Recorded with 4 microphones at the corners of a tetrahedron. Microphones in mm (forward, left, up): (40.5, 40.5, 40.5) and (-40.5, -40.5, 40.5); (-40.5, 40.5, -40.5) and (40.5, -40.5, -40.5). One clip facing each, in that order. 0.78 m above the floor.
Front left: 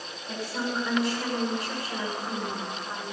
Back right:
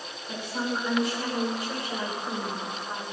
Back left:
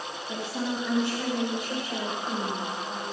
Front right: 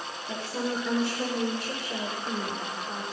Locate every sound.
0.3 s a woman speaking: 45° right, 9.5 m; by 3.0 s 50° right, 8 m